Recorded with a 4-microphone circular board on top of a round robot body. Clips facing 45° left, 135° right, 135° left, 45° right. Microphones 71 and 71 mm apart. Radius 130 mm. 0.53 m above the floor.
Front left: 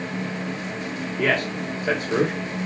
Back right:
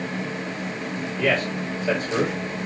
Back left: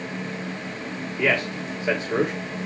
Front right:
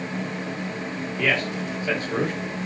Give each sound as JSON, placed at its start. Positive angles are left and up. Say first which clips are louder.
{"t": 1.2, "sound": "a man speaking", "louder": "even, back left 1 dB", "azimuth_deg": 70, "distance_m": 3.0}